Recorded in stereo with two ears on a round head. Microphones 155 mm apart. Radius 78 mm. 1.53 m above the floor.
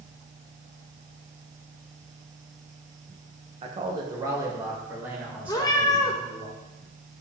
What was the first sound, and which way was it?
A man speaking, 35° right (ahead or behind).